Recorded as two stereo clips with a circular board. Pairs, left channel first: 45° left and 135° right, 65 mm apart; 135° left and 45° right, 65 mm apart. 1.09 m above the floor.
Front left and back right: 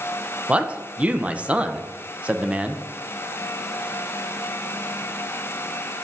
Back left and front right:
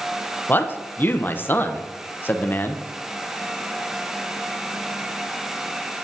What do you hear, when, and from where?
0.5 s a man speaking: 170° left, 0.6 m